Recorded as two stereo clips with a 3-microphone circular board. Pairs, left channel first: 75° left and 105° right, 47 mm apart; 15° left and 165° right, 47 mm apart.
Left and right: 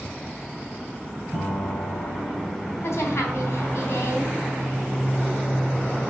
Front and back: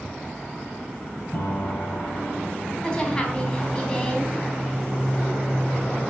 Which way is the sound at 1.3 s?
50° left.